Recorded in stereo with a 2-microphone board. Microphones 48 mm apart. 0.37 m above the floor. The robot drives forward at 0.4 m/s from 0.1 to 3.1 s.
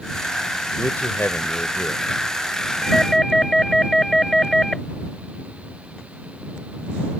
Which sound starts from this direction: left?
A man speaking, at 0.8 s.